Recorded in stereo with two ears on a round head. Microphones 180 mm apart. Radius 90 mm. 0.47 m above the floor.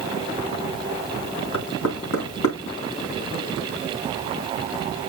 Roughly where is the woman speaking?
No woman speaking in this recording.